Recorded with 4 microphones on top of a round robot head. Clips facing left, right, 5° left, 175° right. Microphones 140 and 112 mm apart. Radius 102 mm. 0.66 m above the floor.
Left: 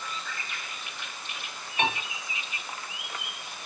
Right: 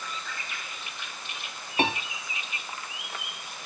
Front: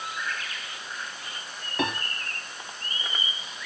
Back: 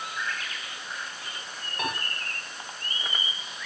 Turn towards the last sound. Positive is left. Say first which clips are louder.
# right 2 dB, front 4 dB
turn(degrees=-35)